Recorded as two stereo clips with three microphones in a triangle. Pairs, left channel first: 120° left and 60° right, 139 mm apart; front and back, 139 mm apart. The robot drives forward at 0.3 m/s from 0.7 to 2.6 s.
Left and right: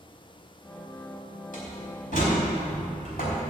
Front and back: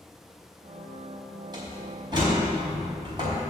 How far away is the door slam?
About 4 m.